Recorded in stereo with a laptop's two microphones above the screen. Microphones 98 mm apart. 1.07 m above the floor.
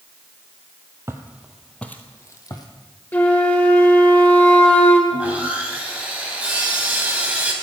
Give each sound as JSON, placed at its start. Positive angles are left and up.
{"t": 1.1, "sound": "footsteps", "side_deg": -25, "distance_m": 1.6}
{"t": 3.1, "sound": "a flute", "side_deg": 20, "distance_m": 1.5}
{"t": 5.1, "sound": "sawing", "side_deg": -15, "distance_m": 4.0}